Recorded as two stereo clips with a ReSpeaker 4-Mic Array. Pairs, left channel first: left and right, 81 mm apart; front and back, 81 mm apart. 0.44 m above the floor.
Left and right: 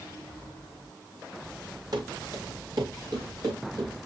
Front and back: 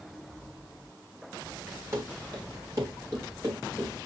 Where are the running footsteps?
125° right, 6 m; by 4.1 s 130° right, 8 m.